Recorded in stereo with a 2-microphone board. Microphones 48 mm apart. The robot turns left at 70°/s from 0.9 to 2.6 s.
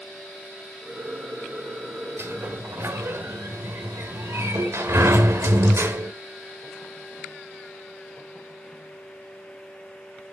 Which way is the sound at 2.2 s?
60° right (ahead or behind).